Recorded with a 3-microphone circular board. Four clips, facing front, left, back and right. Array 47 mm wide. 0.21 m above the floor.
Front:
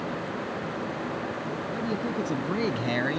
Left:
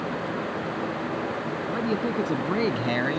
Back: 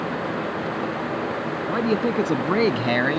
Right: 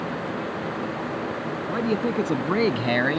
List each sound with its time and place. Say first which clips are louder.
1.7 s a man speaking: right 3 dB, back 10 dB; 160° right; by 3.2 s 130° right